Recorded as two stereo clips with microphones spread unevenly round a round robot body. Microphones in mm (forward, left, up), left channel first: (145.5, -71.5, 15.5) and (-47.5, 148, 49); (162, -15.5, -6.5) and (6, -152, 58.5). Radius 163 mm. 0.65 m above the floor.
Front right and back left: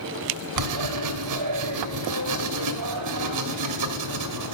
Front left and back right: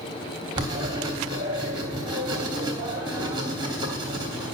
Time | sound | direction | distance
0.6 | writing | 140° left | 1.2 m